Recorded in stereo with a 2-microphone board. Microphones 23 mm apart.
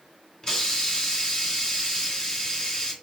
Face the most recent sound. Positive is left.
turn(degrees=25)  # may be behind; listen again after turning